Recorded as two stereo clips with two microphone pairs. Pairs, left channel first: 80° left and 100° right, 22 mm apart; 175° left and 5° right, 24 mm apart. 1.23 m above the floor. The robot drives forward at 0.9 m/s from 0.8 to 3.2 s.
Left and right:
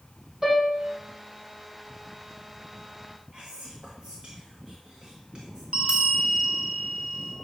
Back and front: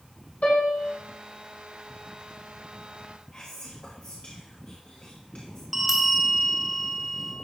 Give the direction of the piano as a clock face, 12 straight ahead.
5 o'clock.